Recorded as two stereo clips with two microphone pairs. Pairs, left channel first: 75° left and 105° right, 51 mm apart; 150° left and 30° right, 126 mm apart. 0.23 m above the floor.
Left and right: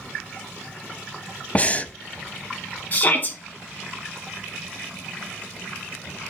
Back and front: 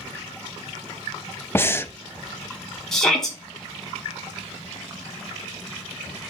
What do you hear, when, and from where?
1.6 s breathing: 100° left, 0.6 m
2.9 s a shout: 70° left, 1.2 m